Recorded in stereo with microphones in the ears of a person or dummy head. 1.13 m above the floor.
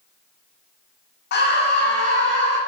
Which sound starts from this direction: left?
A scream, at 1.3 s.